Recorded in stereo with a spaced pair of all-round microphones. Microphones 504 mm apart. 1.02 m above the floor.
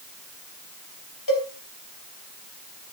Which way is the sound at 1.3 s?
40° left (ahead or behind).